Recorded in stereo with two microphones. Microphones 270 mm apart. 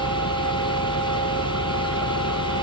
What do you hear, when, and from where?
0.0 s an engine running: 65° left (ahead or behind)